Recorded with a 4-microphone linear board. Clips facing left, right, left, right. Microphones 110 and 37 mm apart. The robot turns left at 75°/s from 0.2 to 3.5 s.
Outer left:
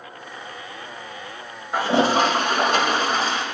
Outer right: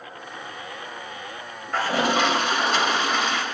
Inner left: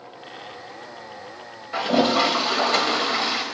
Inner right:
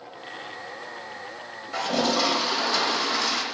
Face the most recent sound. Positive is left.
turn(degrees=30)